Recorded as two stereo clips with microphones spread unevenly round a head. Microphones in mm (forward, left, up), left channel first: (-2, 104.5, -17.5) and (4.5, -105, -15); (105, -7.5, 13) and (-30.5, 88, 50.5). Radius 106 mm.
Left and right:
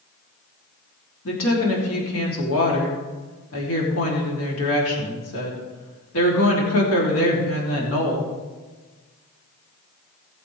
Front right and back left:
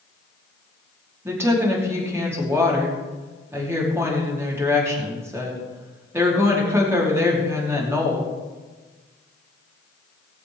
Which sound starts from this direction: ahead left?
A woman speaking, at 1.2 s.